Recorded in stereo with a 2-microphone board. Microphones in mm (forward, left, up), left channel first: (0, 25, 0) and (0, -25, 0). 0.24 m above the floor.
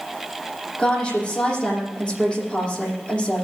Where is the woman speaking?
15° left (ahead or behind), 10 m.